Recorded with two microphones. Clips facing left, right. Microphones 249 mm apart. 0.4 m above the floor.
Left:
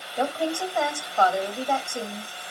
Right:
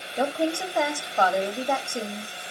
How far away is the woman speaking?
About 2 m.